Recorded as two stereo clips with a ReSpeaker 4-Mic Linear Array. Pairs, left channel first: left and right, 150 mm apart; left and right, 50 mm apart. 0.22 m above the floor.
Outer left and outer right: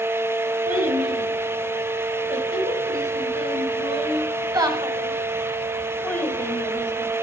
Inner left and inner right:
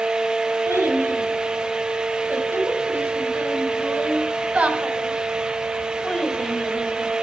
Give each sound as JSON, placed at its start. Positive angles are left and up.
{"t": 0.7, "sound": "a child speaking", "side_deg": -70, "distance_m": 3.0}